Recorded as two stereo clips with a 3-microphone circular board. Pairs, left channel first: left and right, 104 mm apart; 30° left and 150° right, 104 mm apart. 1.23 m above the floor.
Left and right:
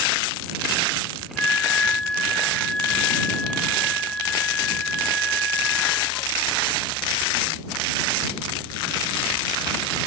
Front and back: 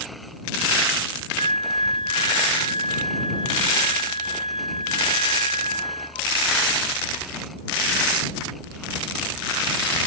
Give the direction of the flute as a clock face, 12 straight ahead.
12 o'clock.